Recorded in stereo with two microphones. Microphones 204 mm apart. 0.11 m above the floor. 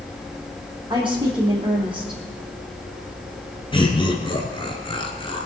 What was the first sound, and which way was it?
A woman speaking, 25° right (ahead or behind).